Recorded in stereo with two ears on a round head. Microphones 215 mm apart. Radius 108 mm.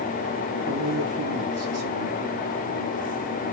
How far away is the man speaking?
About 2 m.